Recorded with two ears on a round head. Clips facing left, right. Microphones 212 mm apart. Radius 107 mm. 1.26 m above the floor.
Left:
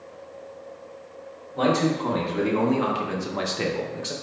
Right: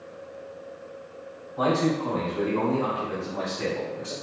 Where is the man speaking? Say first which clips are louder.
Left 2 dB; 60° left (ahead or behind), 1.6 m; by 4.1 s 50° left (ahead or behind), 0.9 m.